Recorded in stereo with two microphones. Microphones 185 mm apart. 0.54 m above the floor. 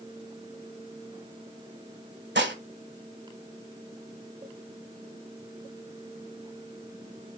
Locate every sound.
2.4 s dishes clattering: 80° right, 1.2 m